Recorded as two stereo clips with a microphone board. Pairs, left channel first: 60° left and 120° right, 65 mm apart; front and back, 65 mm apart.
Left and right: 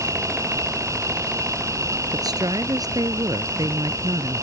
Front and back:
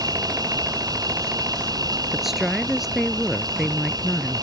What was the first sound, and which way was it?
An insect, 160° right.